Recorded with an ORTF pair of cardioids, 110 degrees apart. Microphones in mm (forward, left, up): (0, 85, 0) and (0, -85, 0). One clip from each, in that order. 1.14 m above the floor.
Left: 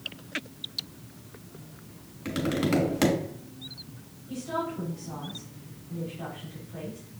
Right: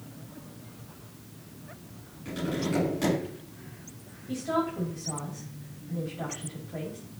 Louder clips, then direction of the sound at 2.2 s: Left 4 dB; 65° left.